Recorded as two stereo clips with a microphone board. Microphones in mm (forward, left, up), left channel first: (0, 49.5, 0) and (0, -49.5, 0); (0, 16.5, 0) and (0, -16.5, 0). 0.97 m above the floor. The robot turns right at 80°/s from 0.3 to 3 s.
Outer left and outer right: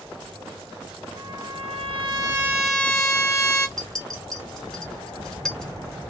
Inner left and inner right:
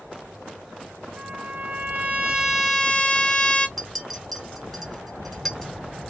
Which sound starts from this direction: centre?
A clink, at 3.8 s.